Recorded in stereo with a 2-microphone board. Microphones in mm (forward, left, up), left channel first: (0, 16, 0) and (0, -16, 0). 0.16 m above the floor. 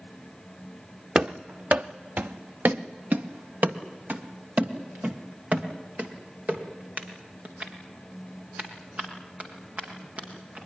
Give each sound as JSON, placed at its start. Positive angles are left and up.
{"t": 1.1, "sound": "running footsteps", "side_deg": -45, "distance_m": 1.0}